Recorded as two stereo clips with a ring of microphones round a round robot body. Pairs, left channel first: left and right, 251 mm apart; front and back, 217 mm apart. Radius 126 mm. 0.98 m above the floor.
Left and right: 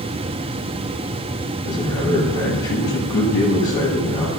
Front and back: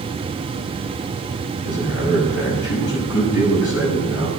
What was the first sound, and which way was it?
A man speaking, 15° left.